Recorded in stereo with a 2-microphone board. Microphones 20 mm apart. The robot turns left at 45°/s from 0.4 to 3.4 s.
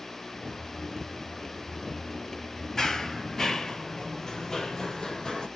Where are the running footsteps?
20° left (ahead or behind), 1.1 m; by 5.5 s 35° left (ahead or behind), 2 m.